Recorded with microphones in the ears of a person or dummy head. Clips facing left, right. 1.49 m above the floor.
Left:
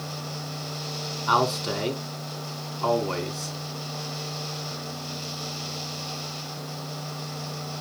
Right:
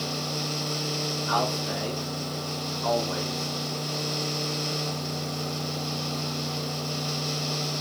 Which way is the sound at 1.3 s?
85° left.